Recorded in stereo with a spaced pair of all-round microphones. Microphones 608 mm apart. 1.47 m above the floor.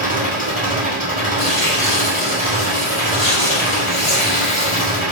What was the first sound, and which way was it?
An engine running, 15° right (ahead or behind).